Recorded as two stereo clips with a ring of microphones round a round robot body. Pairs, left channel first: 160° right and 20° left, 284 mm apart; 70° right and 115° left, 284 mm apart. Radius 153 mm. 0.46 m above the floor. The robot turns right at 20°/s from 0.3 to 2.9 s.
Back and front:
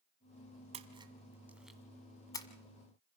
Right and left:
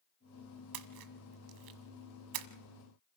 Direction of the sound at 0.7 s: 90° left.